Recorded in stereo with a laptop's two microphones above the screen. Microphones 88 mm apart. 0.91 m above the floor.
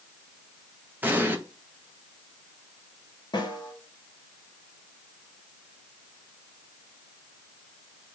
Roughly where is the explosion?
Right.